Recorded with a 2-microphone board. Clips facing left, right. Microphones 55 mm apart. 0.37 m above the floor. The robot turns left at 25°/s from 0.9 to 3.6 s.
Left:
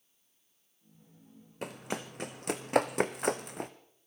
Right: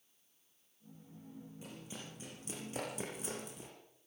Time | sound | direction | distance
1.6 | running footsteps | 70° left (ahead or behind) | 1.3 m